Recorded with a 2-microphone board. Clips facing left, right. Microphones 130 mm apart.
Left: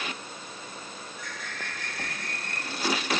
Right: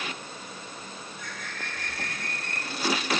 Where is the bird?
50° right (ahead or behind), 3 m.